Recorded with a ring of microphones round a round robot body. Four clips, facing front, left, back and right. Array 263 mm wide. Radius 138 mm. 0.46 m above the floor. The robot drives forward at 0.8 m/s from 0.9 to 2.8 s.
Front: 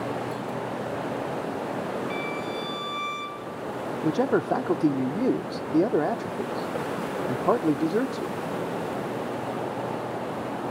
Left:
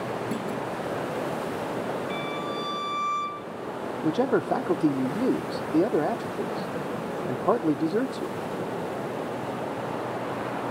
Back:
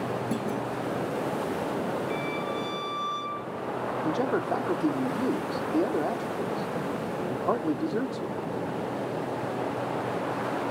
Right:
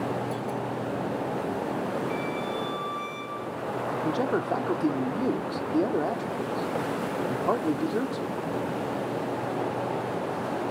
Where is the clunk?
140° left, 4.5 m.